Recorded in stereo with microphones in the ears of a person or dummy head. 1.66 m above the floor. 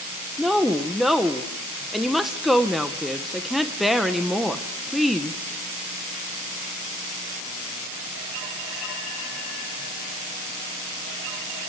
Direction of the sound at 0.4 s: Centre (ahead or behind).